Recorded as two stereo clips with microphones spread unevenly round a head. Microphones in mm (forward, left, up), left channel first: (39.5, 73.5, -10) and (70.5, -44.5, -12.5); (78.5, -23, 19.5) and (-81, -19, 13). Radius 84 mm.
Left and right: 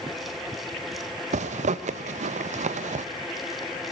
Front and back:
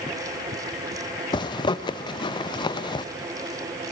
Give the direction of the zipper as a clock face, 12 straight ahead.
2 o'clock.